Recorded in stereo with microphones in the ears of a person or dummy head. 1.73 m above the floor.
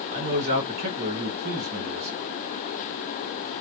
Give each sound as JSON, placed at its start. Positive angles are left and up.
{"t": 0.1, "sound": "a man speaking", "side_deg": -30, "distance_m": 1.4}